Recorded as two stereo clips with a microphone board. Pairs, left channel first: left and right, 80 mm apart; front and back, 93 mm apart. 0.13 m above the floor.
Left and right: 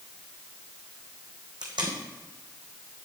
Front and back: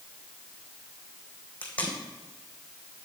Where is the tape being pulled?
75° right, 3 m.